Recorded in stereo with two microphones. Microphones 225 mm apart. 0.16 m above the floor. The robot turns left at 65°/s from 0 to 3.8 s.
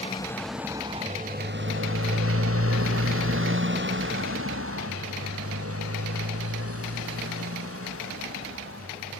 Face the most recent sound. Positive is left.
turn(degrees=-75)  # may be behind; listen again after turning